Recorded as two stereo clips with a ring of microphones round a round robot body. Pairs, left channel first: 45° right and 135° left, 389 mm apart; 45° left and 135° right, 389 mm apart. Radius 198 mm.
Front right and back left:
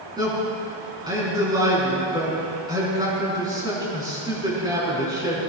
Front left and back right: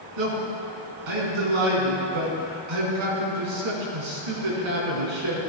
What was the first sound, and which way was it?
A man speaking, 145° right.